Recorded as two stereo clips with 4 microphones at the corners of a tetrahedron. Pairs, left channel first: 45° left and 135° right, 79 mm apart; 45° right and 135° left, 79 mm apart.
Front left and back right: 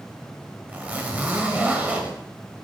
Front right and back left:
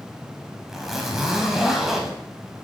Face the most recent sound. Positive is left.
turn(degrees=-150)